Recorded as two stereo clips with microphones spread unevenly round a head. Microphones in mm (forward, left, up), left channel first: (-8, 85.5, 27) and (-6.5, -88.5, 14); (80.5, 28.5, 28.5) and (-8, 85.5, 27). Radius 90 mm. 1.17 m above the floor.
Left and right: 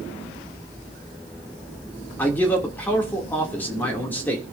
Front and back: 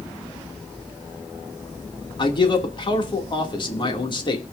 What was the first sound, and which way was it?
A man speaking, 10° left.